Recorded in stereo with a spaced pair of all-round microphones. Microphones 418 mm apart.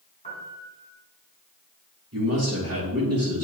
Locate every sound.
0.2 s a piano: 15° left (ahead or behind), 4 m
2.1 s a man speaking: 35° right (ahead or behind), 2.5 m